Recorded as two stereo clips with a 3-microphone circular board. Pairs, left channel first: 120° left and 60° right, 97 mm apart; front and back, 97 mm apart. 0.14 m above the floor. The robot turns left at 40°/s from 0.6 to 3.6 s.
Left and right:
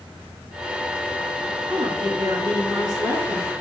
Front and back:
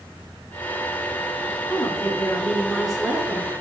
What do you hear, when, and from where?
1.7 s a woman speaking: 45° right, 2 m; by 3.5 s 120° right, 2 m